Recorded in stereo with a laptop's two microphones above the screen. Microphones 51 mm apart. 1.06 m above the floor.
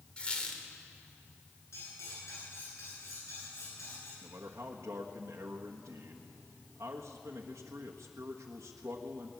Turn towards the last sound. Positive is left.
turn(degrees=-75)  # may be behind; listen again after turning